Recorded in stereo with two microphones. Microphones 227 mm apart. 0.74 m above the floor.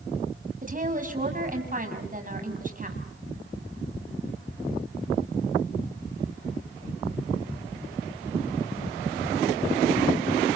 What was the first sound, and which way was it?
A woman speaking, 35° right (ahead or behind).